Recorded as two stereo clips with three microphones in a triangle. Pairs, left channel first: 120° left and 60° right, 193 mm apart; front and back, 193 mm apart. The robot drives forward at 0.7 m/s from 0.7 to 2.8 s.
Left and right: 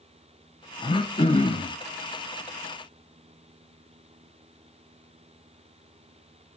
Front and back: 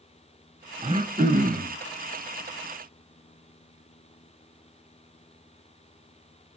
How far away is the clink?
No clink in this recording.